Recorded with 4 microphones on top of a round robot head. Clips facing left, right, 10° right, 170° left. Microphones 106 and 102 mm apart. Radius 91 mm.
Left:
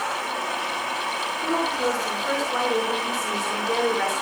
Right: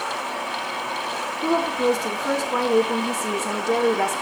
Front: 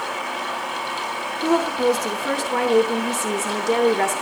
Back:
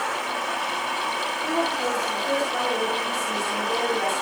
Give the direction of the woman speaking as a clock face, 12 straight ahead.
1 o'clock.